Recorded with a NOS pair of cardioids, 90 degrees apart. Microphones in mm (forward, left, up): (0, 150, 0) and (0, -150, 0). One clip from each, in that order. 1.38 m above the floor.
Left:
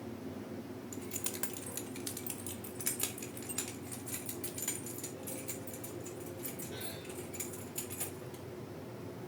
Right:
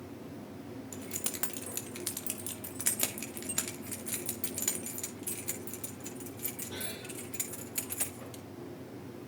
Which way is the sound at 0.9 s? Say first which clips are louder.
Right 3 dB; 20° right.